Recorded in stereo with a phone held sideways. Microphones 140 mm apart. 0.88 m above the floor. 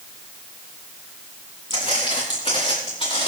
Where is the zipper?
No zipper in this recording.